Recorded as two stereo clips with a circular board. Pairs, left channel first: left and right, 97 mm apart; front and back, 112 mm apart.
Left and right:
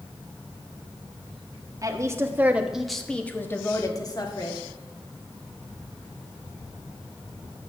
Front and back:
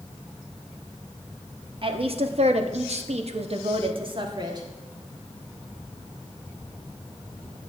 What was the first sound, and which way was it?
A woman speaking, 145° right.